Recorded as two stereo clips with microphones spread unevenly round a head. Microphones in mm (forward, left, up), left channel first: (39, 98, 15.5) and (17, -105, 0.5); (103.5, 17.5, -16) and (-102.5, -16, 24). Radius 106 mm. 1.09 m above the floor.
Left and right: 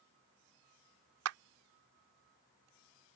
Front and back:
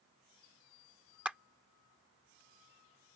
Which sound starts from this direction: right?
A clap, at 1.2 s.